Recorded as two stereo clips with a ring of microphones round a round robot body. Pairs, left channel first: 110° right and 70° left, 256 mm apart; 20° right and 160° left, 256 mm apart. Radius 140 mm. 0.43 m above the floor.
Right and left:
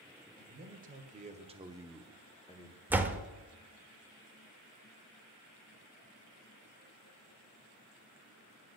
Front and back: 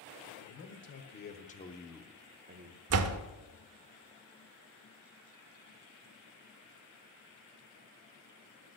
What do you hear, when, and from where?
0.4 s a man speaking: 15° left, 2.0 m; by 2.8 s 170° right, 1.2 m
2.9 s a door slam: 150° left, 0.7 m